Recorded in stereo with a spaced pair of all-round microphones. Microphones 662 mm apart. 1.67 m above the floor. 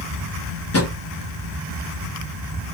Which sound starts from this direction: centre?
A drawer, at 0.7 s.